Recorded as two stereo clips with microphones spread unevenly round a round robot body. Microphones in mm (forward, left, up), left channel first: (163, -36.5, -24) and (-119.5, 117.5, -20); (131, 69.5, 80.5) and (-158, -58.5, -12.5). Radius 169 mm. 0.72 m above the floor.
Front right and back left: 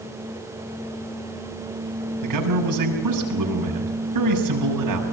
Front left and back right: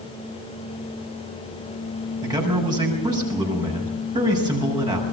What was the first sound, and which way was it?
A man speaking, 130° left.